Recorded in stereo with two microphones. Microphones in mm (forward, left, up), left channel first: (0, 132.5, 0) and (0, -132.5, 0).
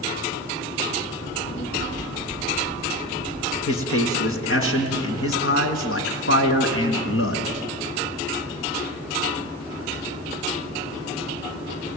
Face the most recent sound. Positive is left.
turn(degrees=50)  # may be behind; listen again after turning